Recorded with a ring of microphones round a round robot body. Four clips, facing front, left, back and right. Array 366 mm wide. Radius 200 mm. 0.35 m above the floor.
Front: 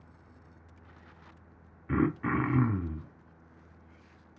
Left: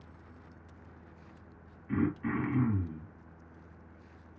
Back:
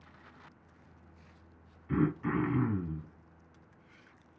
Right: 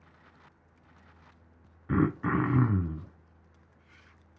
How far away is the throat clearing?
About 0.7 m.